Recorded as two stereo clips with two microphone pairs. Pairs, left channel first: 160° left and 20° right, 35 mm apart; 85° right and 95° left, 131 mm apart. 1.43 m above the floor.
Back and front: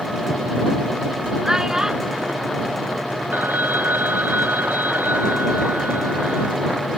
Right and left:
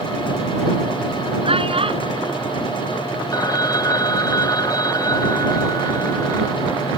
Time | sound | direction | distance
1.4 | a child speaking | 50° left | ?
3.3 | a phone ringing | 25° right | ?